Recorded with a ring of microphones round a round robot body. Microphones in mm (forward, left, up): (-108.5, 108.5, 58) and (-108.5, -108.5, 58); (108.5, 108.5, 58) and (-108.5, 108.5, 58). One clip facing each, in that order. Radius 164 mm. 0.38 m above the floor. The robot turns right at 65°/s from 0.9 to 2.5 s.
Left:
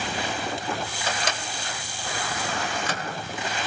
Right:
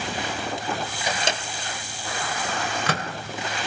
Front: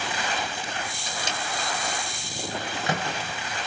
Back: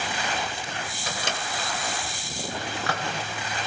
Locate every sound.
1.1 s a microwave: 165° right, 1.9 m; by 3.0 s 70° right, 1.9 m